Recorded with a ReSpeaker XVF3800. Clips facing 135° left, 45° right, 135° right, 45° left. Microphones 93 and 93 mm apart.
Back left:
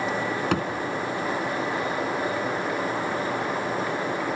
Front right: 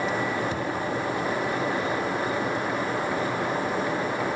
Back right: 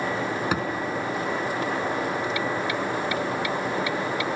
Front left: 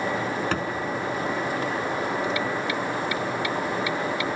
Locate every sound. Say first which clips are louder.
0.5 s a thud: back left 4 dB, back right 1 dB; 145° left, 4 m